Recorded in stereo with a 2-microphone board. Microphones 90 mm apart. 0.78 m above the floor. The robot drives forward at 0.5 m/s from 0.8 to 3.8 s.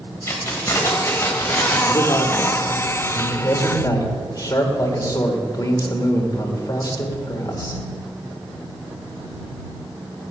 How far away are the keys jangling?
About 3 m.